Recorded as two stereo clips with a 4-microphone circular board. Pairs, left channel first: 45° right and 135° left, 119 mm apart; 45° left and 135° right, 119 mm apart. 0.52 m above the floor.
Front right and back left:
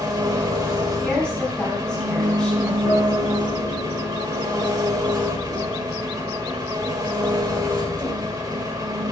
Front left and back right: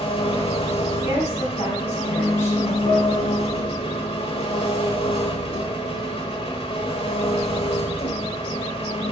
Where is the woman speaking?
40° left, 3 m.